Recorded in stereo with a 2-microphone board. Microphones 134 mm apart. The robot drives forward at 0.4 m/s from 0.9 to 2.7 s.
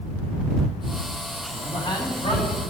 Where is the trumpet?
I don't hear a trumpet.